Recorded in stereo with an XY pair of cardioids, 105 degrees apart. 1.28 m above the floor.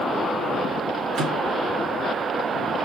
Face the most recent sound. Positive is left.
turn(degrees=-65)